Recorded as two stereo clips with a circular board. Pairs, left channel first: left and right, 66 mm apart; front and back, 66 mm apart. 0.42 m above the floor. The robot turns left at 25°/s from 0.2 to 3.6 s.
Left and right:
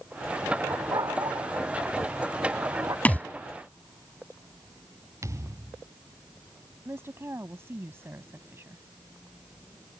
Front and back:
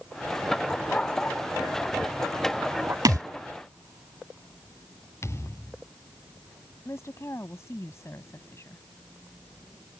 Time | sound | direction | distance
0.7 | a dog barking | 65° right | ?
3.0 | a thud | 155° left | ?
5.2 | a thud | 50° right | ?
6.8 | a woman speaking | 40° right | ?